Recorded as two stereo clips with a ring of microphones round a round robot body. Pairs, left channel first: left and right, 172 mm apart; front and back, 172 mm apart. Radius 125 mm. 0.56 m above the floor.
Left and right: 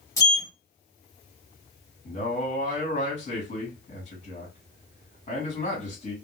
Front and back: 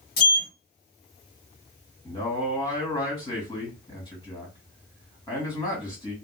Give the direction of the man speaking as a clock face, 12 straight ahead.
10 o'clock.